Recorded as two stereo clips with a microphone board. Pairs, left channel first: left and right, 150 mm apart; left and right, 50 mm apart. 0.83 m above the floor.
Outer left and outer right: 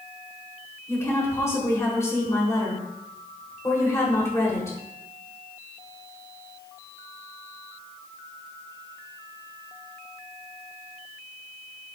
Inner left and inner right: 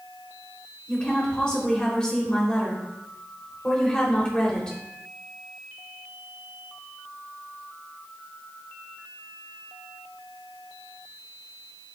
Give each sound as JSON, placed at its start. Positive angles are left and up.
{"t": 0.9, "sound": "a woman speaking", "side_deg": 20, "distance_m": 3.5}